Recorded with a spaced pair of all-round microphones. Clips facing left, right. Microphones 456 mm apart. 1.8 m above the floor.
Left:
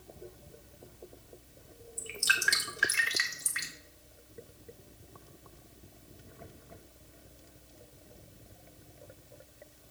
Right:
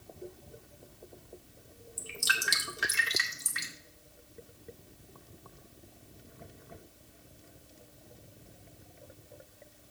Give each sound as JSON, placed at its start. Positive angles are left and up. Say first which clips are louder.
{"t": 2.0, "sound": "dripping", "louder": "even", "side_deg": -55, "distance_m": 1.1}